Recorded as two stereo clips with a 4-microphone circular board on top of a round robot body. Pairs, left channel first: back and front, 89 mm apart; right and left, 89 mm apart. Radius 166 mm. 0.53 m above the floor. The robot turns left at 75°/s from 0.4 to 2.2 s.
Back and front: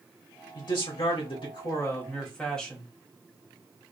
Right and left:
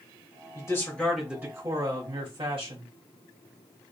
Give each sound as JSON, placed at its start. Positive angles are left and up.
{"t": 0.6, "sound": "a man speaking", "azimuth_deg": -135, "distance_m": 2.5}